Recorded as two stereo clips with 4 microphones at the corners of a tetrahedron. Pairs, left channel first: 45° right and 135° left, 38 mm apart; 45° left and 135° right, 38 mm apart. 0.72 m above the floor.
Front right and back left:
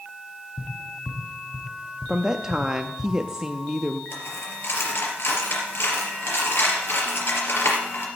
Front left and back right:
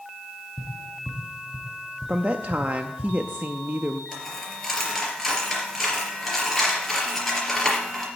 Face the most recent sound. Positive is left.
turn(degrees=-45)